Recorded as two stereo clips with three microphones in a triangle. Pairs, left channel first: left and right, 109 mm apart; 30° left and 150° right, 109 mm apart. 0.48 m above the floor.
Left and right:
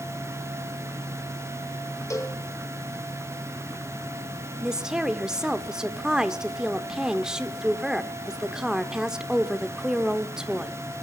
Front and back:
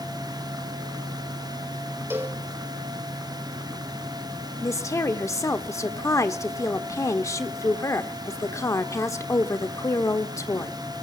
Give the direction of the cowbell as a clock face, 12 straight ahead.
7 o'clock.